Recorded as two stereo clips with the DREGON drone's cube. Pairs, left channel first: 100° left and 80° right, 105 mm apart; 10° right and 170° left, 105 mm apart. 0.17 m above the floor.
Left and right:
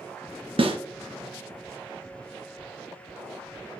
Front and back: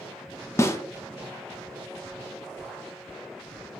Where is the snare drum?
75° right, 0.6 m.